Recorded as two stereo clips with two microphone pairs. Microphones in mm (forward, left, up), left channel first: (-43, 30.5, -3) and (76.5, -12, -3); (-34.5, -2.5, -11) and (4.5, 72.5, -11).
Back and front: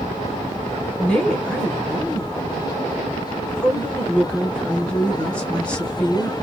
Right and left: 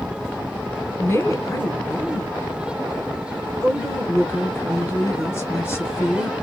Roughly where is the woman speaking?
Behind right.